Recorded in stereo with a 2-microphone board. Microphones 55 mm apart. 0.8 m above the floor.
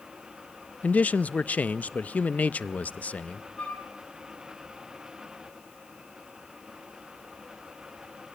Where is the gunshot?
No gunshot in this recording.